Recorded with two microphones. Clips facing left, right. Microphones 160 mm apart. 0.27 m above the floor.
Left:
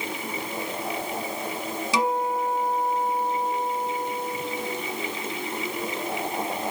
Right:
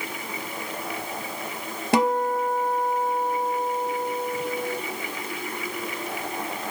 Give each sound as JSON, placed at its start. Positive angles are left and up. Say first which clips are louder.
{"t": 1.9, "sound": "a guitar", "louder": "right 4 dB", "side_deg": -65, "distance_m": 1.1}